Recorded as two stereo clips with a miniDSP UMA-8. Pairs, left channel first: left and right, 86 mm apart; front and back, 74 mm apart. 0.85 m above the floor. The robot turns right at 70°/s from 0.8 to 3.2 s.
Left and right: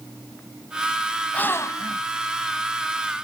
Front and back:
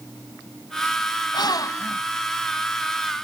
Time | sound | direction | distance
1.3 | a gasp | 15° left | ?